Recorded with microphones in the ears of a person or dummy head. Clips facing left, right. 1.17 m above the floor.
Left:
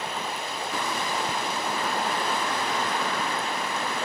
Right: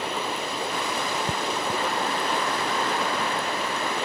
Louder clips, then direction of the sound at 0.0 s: Right 3 dB; 60° right (ahead or behind).